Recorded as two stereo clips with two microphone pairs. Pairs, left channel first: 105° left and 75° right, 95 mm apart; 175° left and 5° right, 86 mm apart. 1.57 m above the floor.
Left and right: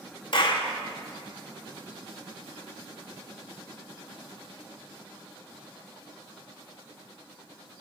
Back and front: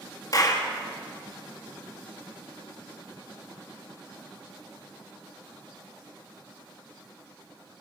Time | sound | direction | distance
0.3 | a clap | 135° left | 1.7 m